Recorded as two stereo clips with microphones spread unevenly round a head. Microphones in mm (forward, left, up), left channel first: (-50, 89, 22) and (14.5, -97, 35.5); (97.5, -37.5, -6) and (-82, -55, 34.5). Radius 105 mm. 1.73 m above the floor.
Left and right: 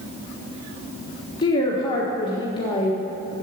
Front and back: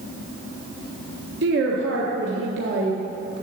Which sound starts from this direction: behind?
A woman speaking, at 1.4 s.